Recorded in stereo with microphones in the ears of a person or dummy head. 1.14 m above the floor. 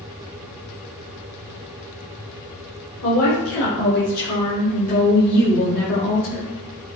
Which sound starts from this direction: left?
A woman speaking, at 3.0 s.